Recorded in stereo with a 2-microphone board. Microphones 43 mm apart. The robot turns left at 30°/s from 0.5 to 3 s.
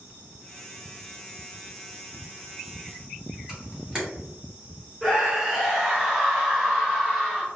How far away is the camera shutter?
About 1.4 m.